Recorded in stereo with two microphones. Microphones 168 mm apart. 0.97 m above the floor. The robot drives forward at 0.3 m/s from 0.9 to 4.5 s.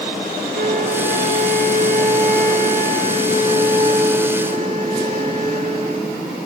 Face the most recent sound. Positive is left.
turn(degrees=-40)  # may be behind; listen again after turning